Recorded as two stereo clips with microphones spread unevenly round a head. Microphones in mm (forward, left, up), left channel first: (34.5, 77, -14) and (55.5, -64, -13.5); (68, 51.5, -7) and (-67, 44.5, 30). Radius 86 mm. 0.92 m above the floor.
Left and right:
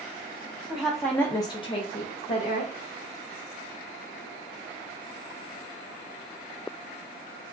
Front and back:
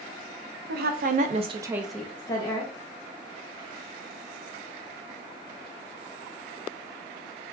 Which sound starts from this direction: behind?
A woman speaking, at 0.7 s.